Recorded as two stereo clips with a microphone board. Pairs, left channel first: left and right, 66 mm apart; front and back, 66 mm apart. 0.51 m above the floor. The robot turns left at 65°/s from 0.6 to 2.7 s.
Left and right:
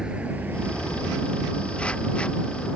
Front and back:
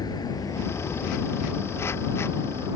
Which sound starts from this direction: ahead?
A vehicle, at 0.0 s.